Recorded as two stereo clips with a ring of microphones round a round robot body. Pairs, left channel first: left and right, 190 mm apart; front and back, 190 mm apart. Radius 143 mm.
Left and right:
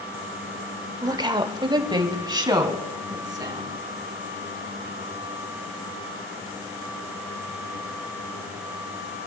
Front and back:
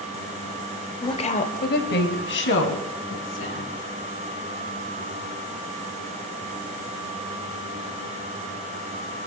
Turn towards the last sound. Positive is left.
turn(degrees=-20)